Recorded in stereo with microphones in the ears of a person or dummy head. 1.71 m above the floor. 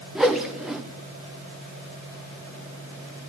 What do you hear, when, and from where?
0.1 s a whoosh: centre (ahead or behind), 0.8 m